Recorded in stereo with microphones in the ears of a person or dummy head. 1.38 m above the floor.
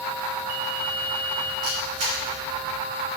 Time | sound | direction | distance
1.6 | a camera shutter | 40° right (ahead or behind) | 2.5 m